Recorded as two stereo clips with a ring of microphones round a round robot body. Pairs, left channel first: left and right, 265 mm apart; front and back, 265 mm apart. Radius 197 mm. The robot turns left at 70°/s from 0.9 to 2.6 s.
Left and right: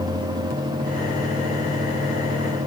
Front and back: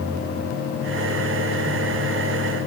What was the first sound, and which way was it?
Only background noise.